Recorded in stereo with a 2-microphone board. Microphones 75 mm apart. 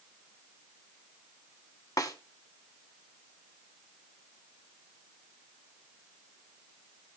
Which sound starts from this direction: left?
A snare drum, at 2.0 s.